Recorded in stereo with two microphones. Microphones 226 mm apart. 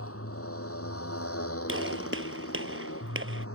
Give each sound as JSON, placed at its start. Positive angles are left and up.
{"t": 0.0, "sound": "a motorcycle", "side_deg": 80}
{"t": 1.7, "sound": "a gunshot", "side_deg": -65}